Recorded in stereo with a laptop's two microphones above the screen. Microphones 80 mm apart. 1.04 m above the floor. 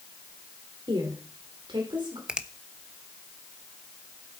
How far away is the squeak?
I don't hear a squeak.